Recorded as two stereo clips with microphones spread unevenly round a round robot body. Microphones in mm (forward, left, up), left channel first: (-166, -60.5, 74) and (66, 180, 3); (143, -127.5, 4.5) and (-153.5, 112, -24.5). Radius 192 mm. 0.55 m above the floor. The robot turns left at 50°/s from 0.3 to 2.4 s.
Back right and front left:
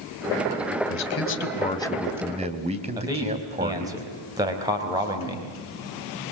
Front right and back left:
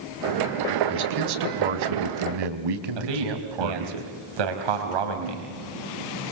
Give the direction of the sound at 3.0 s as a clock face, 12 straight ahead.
8 o'clock.